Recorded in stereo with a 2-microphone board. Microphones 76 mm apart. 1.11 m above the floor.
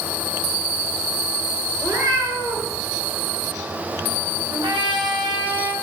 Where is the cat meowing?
45° right (ahead or behind), 4 m.